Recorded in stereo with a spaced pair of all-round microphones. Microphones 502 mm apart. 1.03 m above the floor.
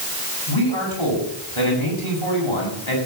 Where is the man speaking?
65° left (ahead or behind), 8 m.